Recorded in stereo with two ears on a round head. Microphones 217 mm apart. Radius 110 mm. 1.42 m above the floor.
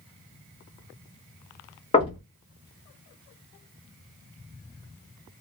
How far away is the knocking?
About 1.2 m.